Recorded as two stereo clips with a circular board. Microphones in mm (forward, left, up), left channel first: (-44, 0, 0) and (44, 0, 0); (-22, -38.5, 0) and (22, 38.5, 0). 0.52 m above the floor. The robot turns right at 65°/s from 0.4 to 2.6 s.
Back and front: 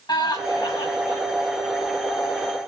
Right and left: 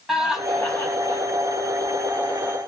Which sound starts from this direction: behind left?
Laughter, at 0.1 s.